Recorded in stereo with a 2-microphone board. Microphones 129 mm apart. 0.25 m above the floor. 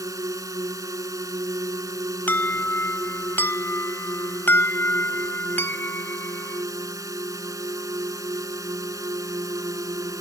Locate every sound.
0.0 s a drone: 25° right (ahead or behind)
2.3 s an alarm: 15° left (ahead or behind)